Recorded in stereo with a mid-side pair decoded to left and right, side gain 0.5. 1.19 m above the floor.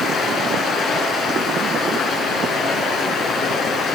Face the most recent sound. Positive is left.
turn(degrees=65)